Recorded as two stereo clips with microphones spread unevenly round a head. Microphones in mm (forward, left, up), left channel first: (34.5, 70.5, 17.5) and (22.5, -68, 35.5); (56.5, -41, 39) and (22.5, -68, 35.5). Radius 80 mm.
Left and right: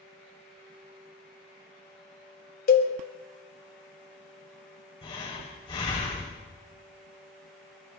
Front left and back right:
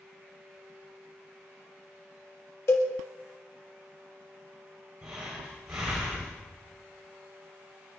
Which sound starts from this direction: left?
A cowbell, at 2.7 s.